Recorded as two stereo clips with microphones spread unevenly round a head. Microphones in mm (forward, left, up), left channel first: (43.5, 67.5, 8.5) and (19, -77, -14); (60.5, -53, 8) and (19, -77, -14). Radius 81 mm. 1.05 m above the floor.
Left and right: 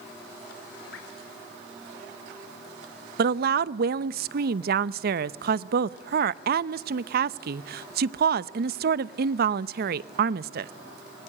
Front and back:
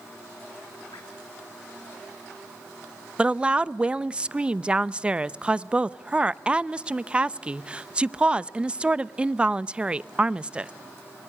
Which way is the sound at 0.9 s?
75° left.